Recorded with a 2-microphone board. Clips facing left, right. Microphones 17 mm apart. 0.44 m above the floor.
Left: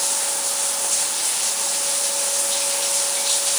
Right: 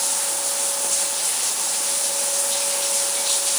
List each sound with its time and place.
0.0 s running water: 10° left (ahead or behind)